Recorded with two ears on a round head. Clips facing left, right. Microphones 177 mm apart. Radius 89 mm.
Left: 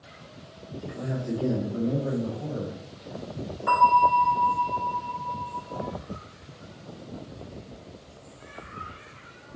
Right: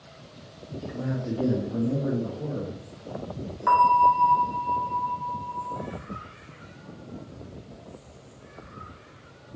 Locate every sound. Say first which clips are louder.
0.8 s a man speaking: right 1 dB; 50° right (ahead or behind), 1.5 m; by 2.8 s 80° right, 3 m
3.7 s a bell: right 1 dB; 80° right, 3.5 m